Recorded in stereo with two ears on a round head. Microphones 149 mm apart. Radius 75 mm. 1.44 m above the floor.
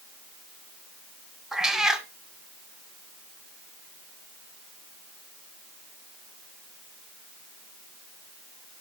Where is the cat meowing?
5° right (ahead or behind), 1.1 m.